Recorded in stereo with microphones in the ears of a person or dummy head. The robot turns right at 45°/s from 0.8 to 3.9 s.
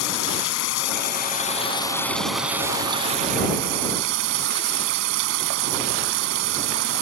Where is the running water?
115° left; by 7.0 s 105° right.